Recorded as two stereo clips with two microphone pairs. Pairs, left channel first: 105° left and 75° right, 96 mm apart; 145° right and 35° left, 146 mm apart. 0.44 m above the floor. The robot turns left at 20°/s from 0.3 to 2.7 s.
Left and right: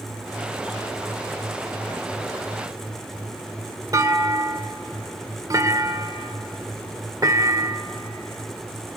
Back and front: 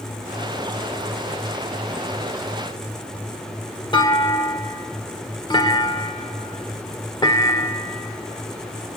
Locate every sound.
3.9 s a clunk: 100° right, 1.1 m